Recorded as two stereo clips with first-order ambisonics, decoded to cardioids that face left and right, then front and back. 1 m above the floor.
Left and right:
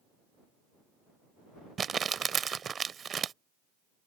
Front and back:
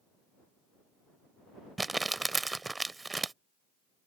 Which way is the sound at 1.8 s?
115° right.